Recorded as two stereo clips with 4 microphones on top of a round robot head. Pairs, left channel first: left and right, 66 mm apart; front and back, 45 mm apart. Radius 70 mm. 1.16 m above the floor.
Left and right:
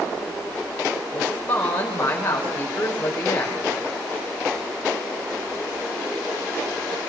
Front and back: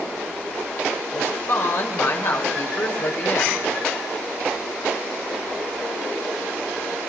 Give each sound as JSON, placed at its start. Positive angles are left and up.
{"t": 1.1, "sound": "a woman speaking", "azimuth_deg": 25, "distance_m": 5.0}